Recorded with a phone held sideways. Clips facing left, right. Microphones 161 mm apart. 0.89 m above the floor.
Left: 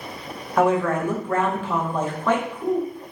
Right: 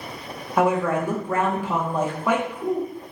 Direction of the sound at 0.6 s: 10° right (ahead or behind).